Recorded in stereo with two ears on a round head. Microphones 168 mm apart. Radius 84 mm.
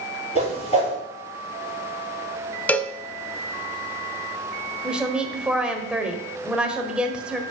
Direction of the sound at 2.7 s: 10° left (ahead or behind).